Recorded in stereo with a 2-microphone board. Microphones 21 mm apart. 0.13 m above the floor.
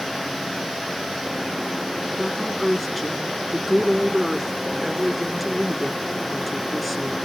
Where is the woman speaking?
Centre (ahead or behind), 1.4 m.